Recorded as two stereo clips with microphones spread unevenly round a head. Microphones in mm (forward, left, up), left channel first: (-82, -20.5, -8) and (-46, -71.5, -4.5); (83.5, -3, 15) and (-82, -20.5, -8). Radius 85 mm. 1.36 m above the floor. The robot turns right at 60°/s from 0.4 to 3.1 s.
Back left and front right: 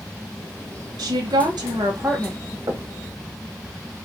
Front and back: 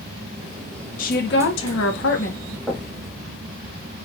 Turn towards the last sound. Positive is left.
turn(degrees=-60)